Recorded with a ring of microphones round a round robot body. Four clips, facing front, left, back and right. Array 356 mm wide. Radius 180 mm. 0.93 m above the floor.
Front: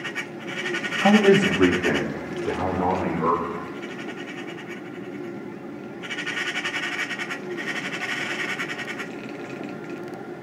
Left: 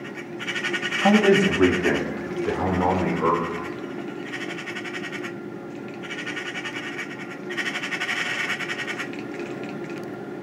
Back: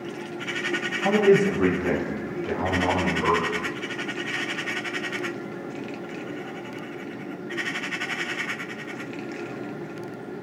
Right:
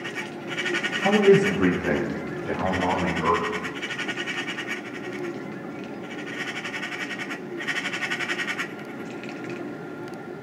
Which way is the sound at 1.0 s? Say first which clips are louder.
Even, front 2 dB; 35° left.